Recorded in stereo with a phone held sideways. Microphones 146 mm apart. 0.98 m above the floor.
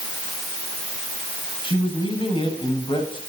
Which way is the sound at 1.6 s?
35° left (ahead or behind).